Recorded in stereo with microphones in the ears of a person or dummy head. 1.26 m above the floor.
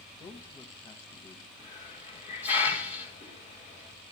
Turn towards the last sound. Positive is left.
turn(degrees=30)  # may be behind; listen again after turning